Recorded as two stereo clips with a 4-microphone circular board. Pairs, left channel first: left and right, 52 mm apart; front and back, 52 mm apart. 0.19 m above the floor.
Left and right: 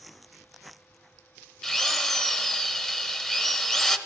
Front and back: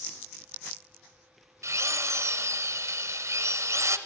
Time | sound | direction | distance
1.6 | a drill | 165° left | 0.8 m